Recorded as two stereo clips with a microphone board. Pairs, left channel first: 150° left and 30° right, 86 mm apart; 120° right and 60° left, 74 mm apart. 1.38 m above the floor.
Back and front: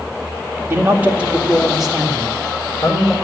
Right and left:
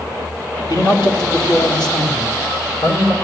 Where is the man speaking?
95° right, 2 m; by 3.1 s 130° right, 4 m.